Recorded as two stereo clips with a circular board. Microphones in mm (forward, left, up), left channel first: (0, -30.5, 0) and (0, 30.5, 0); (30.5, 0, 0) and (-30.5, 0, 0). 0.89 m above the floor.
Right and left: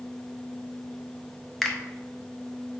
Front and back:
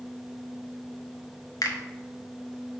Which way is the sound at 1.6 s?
5° right.